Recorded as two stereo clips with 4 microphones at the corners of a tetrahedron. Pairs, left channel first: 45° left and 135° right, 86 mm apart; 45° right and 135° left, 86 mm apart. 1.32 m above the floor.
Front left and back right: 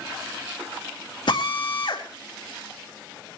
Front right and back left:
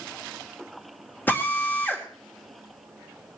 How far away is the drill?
About 2.5 m.